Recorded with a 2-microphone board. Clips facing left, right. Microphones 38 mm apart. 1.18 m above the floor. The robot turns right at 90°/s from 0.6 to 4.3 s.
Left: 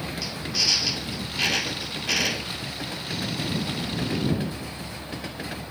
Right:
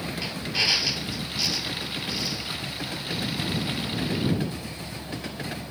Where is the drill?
30° right; by 2.6 s 150° left.